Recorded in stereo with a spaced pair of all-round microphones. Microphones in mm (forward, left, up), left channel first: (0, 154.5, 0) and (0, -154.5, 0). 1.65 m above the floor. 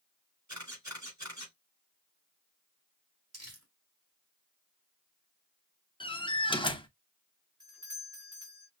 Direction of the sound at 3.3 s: 55° right (ahead or behind).